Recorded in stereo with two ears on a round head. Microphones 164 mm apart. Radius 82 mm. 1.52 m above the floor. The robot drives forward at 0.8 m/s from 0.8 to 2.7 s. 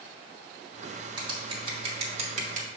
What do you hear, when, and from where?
1.2 s scissors: 25° right (ahead or behind), 2 m; by 2.7 s 45° right (ahead or behind), 1.3 m